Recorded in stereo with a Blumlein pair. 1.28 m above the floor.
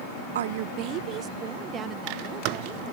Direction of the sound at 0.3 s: 65° right.